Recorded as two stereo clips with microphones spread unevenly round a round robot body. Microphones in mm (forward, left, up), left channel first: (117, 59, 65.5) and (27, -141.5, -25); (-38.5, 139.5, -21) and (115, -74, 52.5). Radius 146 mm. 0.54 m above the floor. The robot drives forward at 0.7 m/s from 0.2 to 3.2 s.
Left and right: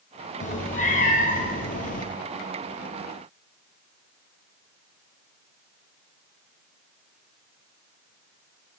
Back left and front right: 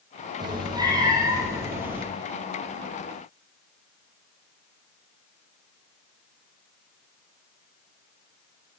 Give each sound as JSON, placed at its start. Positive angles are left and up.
{"t": 0.4, "sound": "a cat meowing", "azimuth_deg": 15, "distance_m": 3.0}